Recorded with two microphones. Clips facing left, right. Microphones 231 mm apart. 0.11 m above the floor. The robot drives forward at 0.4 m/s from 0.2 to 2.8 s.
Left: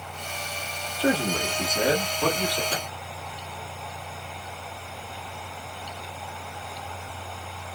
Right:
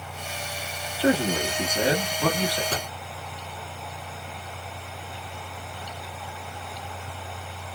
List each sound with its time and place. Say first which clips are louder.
1.0 s a man speaking: right 2 dB; 10° right (ahead or behind), 1.1 m
2.7 s a microwave: right 1 dB; 45° right (ahead or behind), 1.2 m